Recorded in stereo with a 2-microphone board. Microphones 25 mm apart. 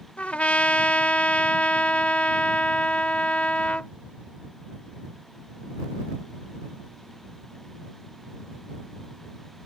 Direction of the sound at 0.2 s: 75° left (ahead or behind).